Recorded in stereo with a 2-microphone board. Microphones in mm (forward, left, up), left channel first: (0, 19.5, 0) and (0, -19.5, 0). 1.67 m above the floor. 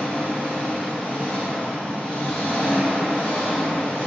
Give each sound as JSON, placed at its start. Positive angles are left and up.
{"t": 0.0, "sound": "an engine running", "side_deg": 50, "distance_m": 1.6}